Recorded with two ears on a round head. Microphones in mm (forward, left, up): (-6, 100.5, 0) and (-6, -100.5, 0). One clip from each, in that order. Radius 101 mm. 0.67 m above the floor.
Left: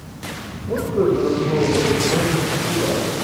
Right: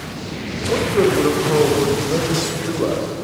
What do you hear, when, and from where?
0.7 s a man speaking: 50° right (ahead or behind), 3.5 m